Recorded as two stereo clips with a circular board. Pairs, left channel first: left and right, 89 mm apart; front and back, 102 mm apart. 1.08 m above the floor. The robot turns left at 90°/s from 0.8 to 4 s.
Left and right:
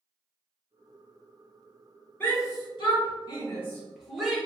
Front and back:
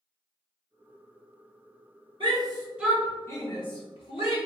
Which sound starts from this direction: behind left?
A shout, at 2.2 s.